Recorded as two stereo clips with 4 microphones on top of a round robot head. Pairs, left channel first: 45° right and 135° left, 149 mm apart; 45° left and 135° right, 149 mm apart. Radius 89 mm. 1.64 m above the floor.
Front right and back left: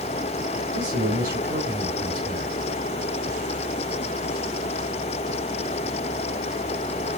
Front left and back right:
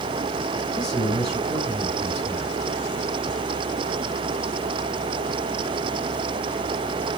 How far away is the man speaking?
About 4.5 m.